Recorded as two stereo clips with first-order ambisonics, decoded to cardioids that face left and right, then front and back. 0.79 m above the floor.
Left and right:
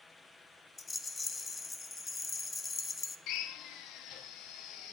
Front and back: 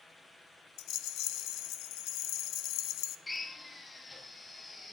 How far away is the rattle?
About 0.6 m.